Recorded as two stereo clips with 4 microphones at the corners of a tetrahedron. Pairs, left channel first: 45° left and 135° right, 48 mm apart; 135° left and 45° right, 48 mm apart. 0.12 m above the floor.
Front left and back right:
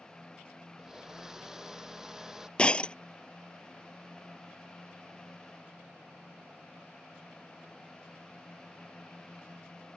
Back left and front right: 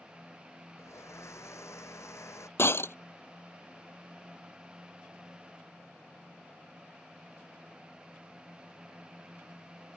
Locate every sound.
0.8 s a blender: 145° left
2.6 s breaking glass: 110° left